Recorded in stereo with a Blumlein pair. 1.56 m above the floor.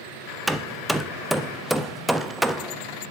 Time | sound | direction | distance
0.5 | hammering | straight ahead | 0.6 m